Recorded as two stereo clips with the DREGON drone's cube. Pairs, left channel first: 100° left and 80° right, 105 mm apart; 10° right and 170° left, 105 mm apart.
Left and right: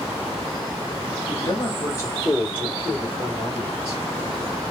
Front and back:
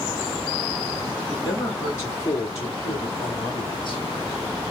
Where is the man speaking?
60° left, 2.5 m; by 4.0 s 10° left, 2.5 m.